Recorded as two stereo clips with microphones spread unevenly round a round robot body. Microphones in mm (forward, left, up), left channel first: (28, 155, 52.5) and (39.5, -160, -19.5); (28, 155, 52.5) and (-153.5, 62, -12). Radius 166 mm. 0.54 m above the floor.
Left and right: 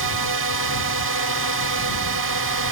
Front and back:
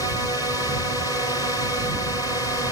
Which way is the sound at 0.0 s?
60° right.